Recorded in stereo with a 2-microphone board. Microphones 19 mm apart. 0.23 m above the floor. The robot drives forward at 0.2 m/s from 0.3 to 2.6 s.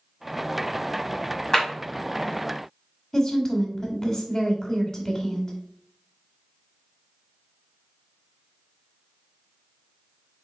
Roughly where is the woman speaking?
Left.